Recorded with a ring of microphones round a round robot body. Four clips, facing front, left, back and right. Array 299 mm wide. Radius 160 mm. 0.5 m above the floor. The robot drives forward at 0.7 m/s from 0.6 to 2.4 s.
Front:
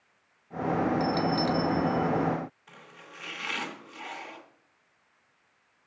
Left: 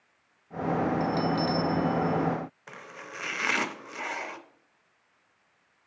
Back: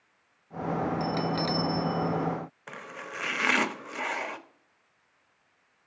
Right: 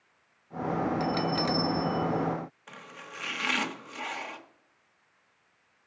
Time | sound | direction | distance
1.0 | a bell | 95° right | 0.8 m
2.7 | chopping | 165° left | 0.7 m